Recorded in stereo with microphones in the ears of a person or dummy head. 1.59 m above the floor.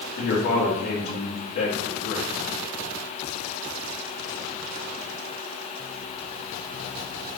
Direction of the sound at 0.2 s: 55° left (ahead or behind).